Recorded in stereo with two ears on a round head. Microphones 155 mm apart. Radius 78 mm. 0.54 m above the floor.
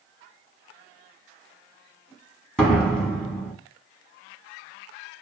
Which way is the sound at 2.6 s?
5° left (ahead or behind).